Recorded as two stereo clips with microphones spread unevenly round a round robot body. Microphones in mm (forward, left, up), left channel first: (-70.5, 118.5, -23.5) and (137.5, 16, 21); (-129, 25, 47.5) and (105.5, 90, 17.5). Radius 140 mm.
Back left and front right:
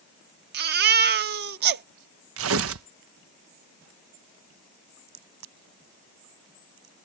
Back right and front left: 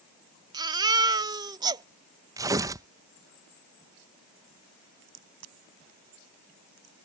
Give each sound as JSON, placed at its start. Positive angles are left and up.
{"t": 0.5, "sound": "a baby crying", "azimuth_deg": -65}
{"t": 2.4, "sound": "tearing paper", "azimuth_deg": -50}
{"t": 5.1, "sound": "a crack", "azimuth_deg": -25}